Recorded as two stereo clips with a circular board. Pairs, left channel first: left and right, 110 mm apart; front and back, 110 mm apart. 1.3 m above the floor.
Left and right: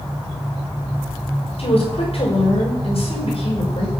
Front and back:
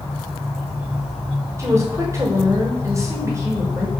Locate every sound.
1.6 s a woman speaking: 120° left, 5.5 m